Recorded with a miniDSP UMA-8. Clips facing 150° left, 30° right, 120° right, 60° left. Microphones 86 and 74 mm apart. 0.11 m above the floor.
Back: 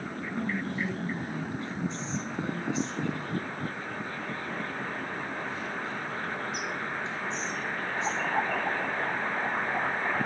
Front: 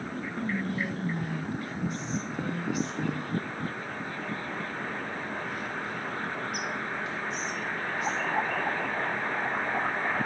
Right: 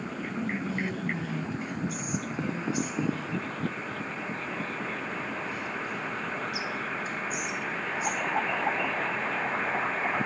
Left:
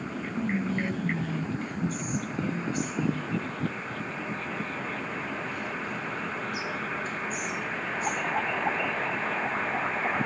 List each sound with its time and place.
0.3 s whispering: 170° left, 1.4 m